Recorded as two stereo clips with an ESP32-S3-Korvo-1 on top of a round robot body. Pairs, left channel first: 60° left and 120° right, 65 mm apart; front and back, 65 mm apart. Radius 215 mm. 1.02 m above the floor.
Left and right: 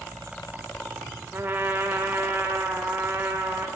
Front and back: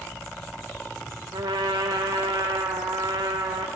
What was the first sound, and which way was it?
A trumpet, straight behind.